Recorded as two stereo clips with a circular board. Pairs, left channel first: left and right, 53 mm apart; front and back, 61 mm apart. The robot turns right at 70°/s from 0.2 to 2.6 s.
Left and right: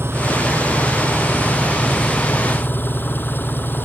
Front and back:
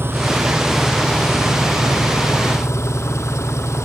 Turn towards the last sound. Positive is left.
turn(degrees=40)